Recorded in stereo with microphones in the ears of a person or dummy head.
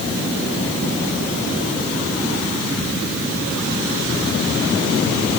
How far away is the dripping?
I don't hear dripping.